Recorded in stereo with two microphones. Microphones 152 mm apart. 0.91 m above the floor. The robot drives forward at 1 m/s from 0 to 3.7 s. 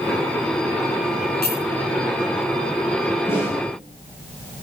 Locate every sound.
1.4 s a clink: 85° left, 4.5 m
3.3 s a snare drum: 15° left (ahead or behind), 5 m